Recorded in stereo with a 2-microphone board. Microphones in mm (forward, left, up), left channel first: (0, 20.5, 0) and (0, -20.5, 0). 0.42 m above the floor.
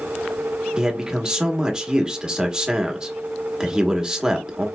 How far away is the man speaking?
About 0.8 m.